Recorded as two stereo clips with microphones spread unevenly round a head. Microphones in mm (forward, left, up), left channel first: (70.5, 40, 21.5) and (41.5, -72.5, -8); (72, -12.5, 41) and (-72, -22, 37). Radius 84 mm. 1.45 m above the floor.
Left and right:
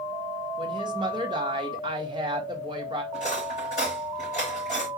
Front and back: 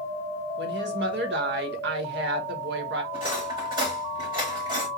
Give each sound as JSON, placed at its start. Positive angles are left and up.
{"t": 0.6, "sound": "a woman speaking", "azimuth_deg": -170, "distance_m": 1.4}
{"t": 3.1, "sound": "cutlery clinking", "azimuth_deg": 120, "distance_m": 3.5}